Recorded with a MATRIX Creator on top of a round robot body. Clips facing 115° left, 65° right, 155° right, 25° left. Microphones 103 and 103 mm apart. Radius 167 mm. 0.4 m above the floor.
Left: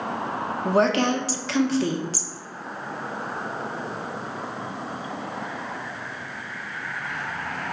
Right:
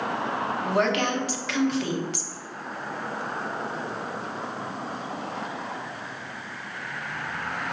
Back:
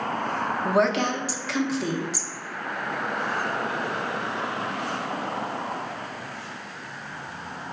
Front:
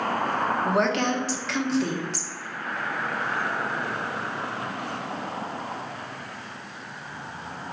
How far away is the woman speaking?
About 0.8 m.